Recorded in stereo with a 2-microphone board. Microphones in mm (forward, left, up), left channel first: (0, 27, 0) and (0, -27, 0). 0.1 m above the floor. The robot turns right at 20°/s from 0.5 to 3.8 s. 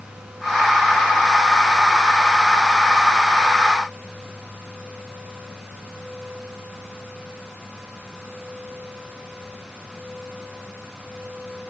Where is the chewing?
I don't hear chewing.